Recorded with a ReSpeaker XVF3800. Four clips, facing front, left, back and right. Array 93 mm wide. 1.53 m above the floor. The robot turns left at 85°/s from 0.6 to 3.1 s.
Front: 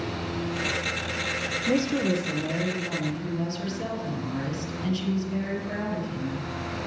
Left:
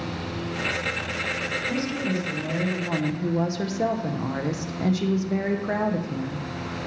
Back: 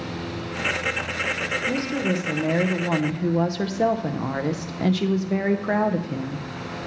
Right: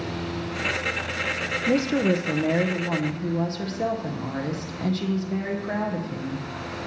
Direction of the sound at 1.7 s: 70° right.